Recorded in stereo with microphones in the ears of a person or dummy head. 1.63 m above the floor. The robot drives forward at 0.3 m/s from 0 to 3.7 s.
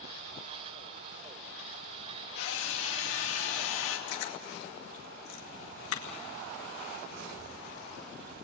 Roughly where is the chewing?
Left.